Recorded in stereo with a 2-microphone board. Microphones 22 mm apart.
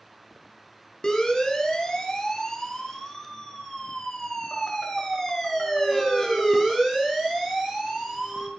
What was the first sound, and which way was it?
A siren, 30° left (ahead or behind).